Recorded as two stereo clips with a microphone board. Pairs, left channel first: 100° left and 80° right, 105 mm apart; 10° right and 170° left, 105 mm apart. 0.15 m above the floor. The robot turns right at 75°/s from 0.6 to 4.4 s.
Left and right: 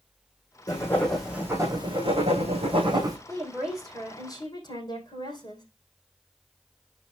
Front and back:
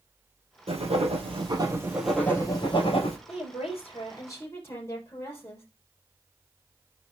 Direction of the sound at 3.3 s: 30° right.